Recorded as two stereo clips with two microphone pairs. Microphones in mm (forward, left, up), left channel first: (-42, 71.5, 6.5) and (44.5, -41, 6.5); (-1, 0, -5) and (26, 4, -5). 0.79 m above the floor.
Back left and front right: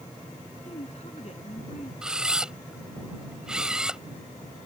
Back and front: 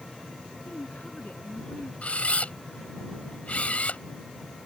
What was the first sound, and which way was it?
A woman speaking, 165° left.